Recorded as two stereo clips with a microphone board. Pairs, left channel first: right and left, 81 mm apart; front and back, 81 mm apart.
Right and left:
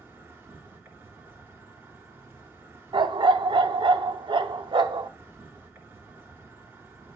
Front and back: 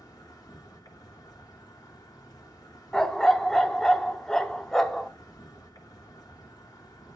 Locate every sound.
0.0 s an insect: 35° left, 3 m
2.9 s a dog barking: 85° left, 0.7 m